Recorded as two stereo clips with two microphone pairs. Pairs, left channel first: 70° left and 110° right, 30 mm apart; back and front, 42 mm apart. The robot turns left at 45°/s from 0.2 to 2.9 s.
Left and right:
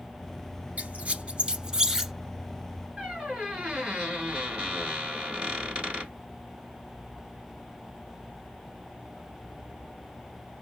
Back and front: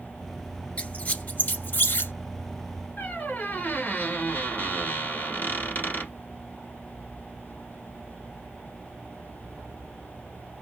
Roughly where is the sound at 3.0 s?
Behind right.